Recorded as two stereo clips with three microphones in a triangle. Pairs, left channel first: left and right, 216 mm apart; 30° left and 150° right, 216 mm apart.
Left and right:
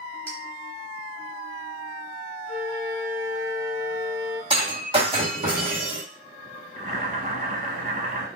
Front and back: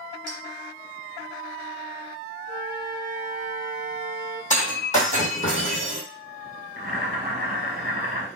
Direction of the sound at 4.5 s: 25° right.